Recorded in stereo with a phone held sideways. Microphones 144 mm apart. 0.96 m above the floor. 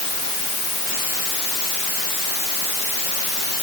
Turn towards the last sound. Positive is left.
No sound to turn to.